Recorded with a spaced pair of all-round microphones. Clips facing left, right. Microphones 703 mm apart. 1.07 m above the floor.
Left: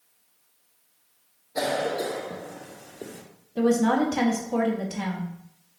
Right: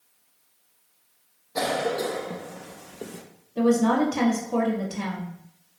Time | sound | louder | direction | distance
1.6 | a cough | right 1 dB | 40° right (ahead or behind) | 0.5 m
3.6 | a woman speaking | right 1 dB | 25° left (ahead or behind) | 0.7 m